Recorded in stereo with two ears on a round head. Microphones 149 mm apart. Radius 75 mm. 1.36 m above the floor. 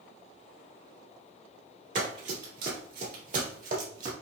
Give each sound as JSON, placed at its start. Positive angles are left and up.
{"t": 1.9, "sound": "running footsteps", "side_deg": -50, "distance_m": 2.0}